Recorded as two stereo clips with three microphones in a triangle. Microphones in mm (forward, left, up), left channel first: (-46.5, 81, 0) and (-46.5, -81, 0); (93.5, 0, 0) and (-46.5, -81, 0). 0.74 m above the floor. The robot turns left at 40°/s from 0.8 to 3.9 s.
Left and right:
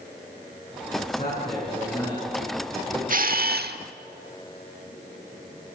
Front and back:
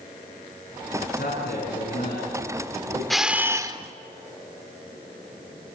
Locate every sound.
1.0 s a man speaking: 55° left, 8 m; by 3.0 s 25° right, 8 m
3.1 s a camera shutter: 60° right, 1.2 m; by 3.8 s 85° right, 1.2 m